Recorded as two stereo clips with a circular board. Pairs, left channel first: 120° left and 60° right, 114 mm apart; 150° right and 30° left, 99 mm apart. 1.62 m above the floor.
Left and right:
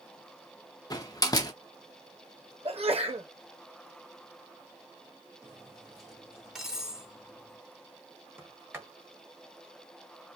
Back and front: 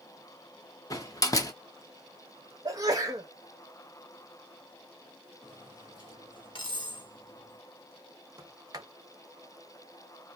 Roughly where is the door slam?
Behind.